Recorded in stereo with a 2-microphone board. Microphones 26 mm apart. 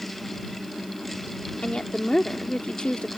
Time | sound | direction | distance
1.6 | a woman speaking | 45° left (ahead or behind) | ?